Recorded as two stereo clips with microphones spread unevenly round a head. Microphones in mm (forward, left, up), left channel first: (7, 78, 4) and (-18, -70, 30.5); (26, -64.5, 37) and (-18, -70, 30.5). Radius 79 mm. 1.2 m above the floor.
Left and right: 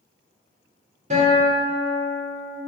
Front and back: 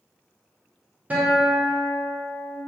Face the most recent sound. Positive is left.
turn(degrees=-115)